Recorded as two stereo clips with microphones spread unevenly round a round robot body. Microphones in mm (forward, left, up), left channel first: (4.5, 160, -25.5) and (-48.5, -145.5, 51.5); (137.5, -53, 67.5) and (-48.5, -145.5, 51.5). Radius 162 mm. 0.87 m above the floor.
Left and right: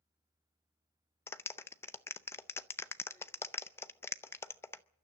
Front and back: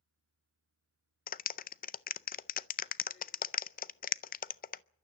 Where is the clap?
25° left, 0.5 m.